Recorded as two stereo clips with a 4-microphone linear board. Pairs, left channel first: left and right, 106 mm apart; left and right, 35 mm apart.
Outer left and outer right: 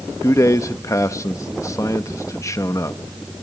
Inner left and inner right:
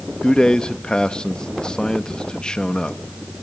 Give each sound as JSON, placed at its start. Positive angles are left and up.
{"t": 0.2, "sound": "a man speaking", "side_deg": 30, "distance_m": 0.8}